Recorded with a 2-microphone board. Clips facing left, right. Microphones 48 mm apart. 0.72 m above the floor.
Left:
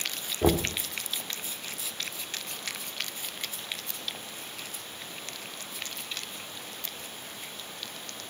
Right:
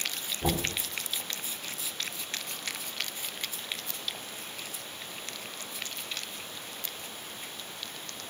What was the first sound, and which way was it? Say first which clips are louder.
Knocking: left 6 dB; 55° left (ahead or behind).